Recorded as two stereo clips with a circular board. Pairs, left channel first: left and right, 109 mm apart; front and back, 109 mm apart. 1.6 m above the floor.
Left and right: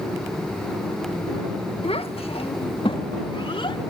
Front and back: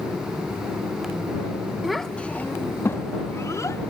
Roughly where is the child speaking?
Left.